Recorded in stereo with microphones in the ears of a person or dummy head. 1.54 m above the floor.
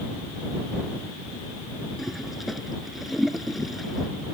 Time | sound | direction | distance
2.0 | a toilet flushing | centre (ahead or behind) | ?